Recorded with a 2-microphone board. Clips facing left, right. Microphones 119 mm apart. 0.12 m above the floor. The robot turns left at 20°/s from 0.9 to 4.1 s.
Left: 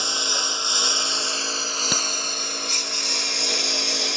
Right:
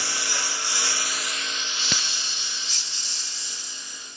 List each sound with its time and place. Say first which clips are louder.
0.0 s a lawn mower: left 3 dB; 155° left; by 4.2 s 95° left
1.9 s a crack: left 3 dB; 10° left (ahead or behind); by 2.1 s 5° left (ahead or behind)